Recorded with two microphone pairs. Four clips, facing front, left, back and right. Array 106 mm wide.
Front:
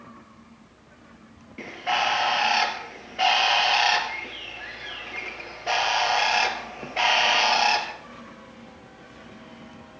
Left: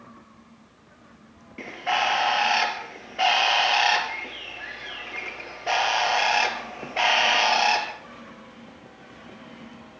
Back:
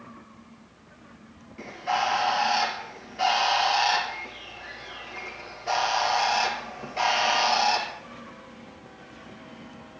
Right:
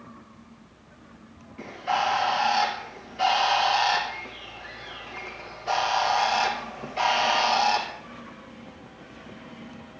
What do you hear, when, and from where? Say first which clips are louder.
1.6 s a bird: even, front 1 dB; 60° left, 2 m